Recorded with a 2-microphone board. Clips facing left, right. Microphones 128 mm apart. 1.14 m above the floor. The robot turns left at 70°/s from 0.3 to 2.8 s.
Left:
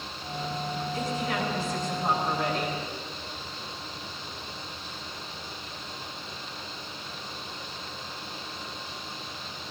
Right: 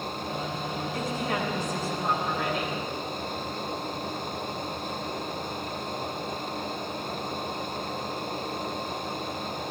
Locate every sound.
0.9 s a woman speaking: 110° right, 5 m; by 2.8 s 120° left, 5 m